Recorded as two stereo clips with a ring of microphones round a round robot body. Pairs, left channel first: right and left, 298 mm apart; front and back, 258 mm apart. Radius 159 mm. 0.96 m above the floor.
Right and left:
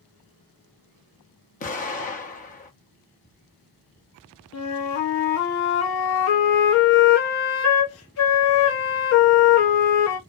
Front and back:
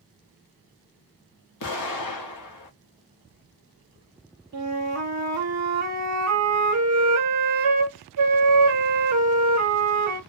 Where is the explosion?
25° right, 0.7 m.